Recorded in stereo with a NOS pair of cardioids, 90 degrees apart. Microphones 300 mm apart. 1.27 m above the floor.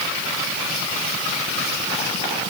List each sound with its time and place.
Only background noise.